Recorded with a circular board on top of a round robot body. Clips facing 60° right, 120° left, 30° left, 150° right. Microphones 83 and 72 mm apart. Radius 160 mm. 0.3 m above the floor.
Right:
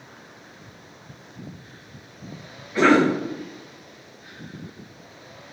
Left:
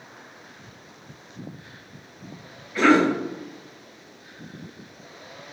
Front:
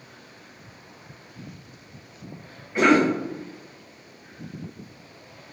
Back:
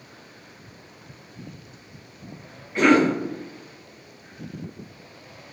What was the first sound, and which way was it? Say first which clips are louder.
A cough: right 1 dB, back 1 dB; 35° right.